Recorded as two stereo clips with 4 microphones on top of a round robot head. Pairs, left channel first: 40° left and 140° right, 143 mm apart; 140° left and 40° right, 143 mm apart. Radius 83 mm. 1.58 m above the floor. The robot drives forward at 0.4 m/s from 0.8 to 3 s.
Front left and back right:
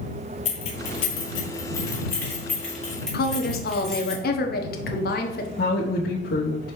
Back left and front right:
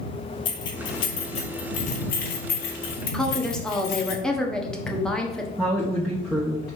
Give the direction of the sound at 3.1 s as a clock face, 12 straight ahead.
10 o'clock.